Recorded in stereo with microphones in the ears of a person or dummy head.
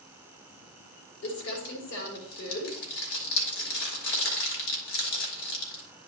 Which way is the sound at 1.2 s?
70° left (ahead or behind).